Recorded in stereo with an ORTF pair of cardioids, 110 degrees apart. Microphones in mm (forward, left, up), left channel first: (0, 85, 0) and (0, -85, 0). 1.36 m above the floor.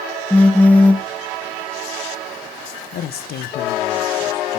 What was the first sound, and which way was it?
A phone buzzing, 10° left.